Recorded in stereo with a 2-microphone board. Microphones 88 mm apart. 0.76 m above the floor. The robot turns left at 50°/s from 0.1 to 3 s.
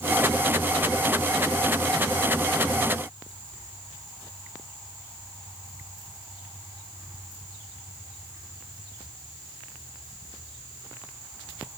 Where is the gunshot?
No gunshot in this recording.